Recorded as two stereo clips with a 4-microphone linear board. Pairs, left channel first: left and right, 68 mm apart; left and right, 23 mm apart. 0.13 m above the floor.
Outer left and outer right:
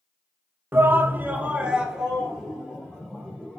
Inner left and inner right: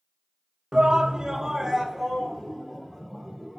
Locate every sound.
0.7 s a shout: 30° right (ahead or behind), 1.2 m; by 3.6 s centre (ahead or behind), 3.5 m